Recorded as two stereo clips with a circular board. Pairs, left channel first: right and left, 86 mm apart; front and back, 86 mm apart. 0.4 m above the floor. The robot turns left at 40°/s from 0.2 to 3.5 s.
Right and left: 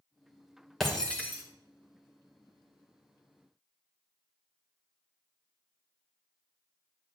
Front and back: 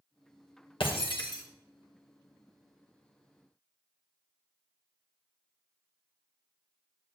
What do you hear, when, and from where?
0.8 s breaking glass: straight ahead, 2.5 m; by 1.4 s 25° right, 2.5 m